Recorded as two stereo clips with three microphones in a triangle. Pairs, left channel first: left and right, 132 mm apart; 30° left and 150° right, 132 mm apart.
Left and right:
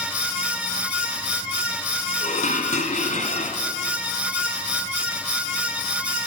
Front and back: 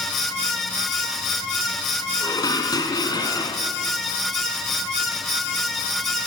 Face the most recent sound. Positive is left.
turn(degrees=85)